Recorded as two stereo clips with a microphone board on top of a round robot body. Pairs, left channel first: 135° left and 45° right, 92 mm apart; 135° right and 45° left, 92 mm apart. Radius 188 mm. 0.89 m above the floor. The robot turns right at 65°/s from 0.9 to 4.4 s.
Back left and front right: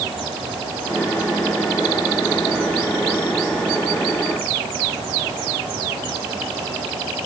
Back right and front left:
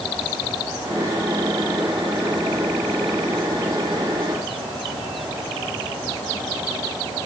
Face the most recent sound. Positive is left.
No sound to turn to.